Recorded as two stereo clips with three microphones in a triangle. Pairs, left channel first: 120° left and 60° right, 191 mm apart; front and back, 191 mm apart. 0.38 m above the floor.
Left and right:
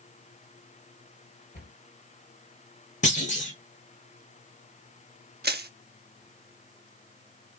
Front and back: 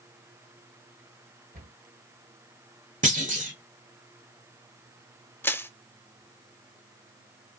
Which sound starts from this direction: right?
Crushing, at 5.4 s.